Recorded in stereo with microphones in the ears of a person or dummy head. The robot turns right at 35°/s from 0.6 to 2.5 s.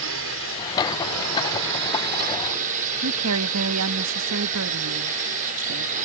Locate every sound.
0.0 s a drone: 115° right; by 6.1 s 45° right
3.0 s a woman speaking: 75° right (ahead or behind)